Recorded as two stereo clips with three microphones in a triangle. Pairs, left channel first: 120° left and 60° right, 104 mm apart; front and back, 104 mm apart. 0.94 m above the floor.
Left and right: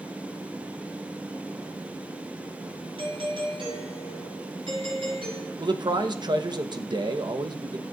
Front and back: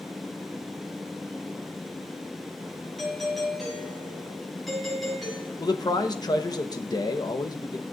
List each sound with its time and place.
3.0 s a doorbell: 90° right, 6 m
5.6 s a man speaking: 35° right, 0.9 m